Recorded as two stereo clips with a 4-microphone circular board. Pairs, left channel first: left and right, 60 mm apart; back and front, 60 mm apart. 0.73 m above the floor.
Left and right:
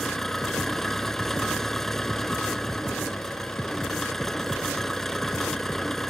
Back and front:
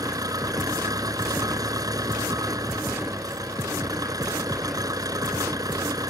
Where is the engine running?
5° left.